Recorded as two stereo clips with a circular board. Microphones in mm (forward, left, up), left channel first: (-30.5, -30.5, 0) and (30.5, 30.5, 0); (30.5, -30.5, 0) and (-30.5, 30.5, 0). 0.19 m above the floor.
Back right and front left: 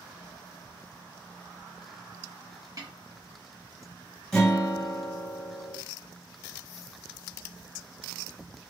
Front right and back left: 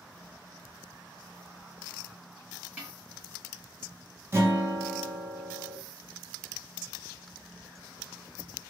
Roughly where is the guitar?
Behind left.